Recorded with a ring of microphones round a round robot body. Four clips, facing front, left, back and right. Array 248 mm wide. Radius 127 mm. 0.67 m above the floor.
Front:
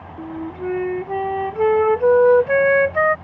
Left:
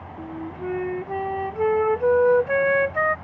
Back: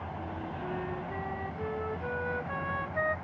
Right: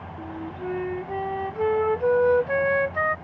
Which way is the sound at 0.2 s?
10° left.